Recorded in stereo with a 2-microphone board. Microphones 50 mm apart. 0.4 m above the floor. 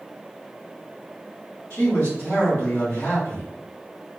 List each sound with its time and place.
1.7 s a man speaking: 30° left (ahead or behind), 1.6 m